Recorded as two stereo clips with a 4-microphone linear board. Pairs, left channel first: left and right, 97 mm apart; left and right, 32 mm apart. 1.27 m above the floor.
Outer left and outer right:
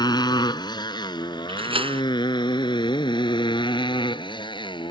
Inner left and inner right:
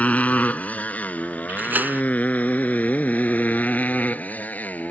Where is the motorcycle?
50° left (ahead or behind); by 4.9 s 55° left (ahead or behind).